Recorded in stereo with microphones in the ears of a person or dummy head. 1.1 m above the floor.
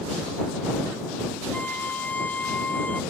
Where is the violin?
5° left (ahead or behind).